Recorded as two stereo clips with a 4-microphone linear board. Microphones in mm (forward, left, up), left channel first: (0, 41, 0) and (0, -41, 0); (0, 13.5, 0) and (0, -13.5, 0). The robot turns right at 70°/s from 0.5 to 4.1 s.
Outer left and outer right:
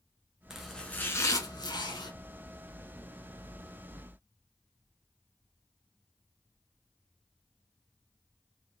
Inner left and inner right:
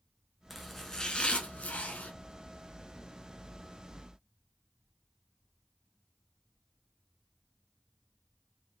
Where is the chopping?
5° right, 0.9 m; by 2.1 s 105° left, 0.9 m.